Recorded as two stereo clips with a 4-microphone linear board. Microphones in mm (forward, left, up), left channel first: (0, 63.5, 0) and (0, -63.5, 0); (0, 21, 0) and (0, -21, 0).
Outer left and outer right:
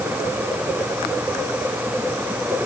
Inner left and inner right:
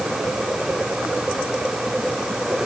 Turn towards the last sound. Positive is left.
No sound to turn to.